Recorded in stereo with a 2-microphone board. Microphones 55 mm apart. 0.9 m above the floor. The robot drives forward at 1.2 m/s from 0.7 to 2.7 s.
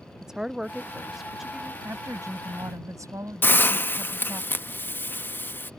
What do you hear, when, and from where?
0.2 s a woman speaking: 10° right (ahead or behind); by 1.7 s 5° right (ahead or behind)
1.8 s a woman speaking: 70° right (ahead or behind); by 4.4 s 75° right (ahead or behind)
3.4 s a hiss: 40° left (ahead or behind)